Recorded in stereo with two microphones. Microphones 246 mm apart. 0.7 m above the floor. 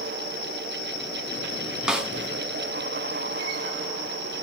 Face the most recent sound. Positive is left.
turn(degrees=-5)  # may be behind; listen again after turning